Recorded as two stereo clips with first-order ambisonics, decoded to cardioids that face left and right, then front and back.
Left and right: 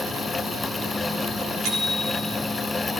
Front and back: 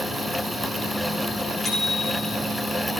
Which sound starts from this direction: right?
A bicycle bell, at 1.6 s.